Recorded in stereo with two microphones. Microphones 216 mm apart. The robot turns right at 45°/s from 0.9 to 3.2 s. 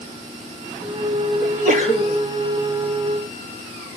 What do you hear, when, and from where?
1.4 s a sneeze: 50° right, 6 m; by 2.2 s 15° right, 6 m